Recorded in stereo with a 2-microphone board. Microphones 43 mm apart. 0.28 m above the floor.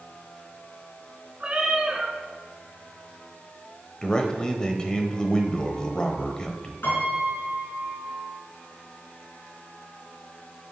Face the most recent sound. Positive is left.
turn(degrees=65)  # may be behind; listen again after turning